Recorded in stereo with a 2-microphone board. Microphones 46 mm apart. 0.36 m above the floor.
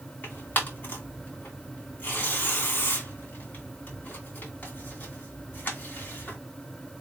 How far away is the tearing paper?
About 2.0 m.